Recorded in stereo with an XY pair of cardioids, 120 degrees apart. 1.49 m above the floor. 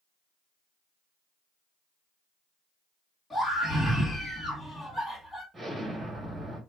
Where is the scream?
20° left, 2.5 m.